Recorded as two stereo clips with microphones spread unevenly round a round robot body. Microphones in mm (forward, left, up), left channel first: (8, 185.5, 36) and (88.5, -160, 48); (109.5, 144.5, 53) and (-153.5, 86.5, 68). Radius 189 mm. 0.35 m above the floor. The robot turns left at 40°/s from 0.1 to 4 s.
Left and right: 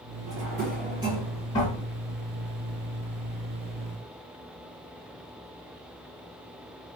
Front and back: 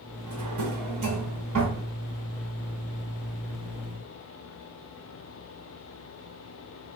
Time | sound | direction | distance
0.3 | a drawer | 125° right | 1.7 m